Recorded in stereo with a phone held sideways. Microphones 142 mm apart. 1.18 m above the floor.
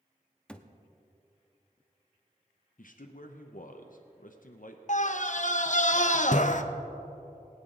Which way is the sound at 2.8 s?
70° left (ahead or behind).